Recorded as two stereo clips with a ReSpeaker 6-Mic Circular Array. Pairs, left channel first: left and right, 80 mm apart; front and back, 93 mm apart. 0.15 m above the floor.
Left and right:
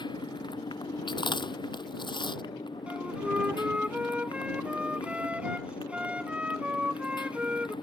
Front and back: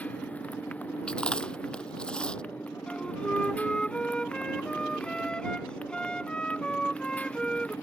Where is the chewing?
80° left.